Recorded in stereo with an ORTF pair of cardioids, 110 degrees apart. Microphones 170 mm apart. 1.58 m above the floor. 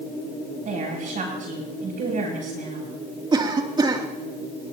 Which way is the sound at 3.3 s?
25° right.